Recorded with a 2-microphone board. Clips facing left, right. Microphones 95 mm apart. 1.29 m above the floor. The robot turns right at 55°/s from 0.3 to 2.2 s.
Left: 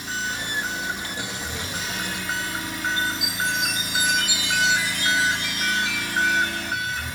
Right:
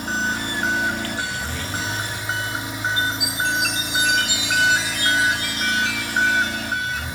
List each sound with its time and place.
0.0 s an engine running: 130° right, 2 m; by 7.2 s 25° right, 2 m
3.0 s a chime: 80° right, 7 m